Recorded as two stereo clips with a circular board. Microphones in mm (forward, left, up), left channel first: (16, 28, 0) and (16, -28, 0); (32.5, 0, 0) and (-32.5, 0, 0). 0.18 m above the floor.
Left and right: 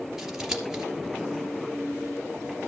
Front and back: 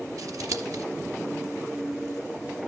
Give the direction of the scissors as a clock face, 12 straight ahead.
6 o'clock.